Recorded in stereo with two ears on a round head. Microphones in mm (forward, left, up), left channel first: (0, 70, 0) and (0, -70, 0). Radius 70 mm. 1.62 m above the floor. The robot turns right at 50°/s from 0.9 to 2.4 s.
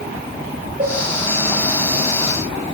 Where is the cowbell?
40° right (ahead or behind), 3.5 m; by 1.0 s 35° right (ahead or behind), 3.5 m.